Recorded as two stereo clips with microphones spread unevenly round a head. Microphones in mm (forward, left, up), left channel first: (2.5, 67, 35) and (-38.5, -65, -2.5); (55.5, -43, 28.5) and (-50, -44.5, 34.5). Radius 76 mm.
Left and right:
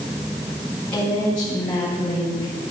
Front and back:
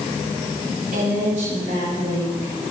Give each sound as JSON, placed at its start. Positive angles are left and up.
{"t": 0.9, "sound": "a woman speaking", "azimuth_deg": 150, "distance_m": 8.5}